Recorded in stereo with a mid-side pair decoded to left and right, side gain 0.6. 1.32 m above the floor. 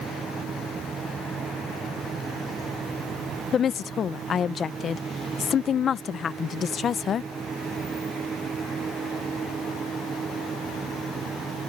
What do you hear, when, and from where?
0.0 s a fan: 30° right
3.5 s a woman speaking: 40° left